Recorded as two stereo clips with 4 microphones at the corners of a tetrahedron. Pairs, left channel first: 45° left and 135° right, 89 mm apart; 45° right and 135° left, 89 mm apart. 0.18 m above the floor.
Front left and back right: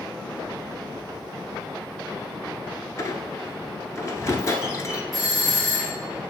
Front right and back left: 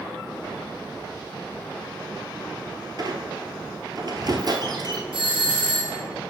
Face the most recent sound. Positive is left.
turn(degrees=135)